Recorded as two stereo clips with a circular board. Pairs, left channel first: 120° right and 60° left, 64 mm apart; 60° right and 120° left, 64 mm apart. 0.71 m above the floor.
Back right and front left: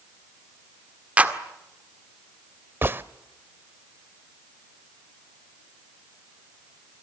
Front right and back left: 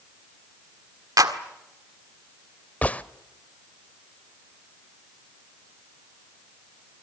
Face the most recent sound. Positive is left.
turn(degrees=5)